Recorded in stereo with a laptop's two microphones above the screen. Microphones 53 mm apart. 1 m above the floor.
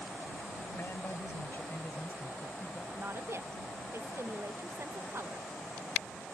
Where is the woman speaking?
55° right (ahead or behind).